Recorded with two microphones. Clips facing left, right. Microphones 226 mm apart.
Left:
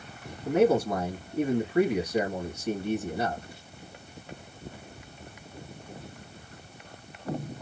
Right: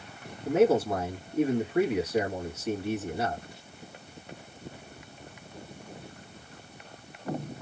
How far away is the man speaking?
About 2 m.